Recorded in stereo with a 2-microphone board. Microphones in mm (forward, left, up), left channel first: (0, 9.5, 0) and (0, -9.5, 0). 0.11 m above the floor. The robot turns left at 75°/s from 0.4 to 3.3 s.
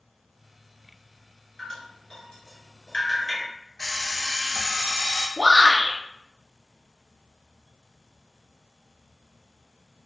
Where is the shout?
25° right (ahead or behind), 1.9 m.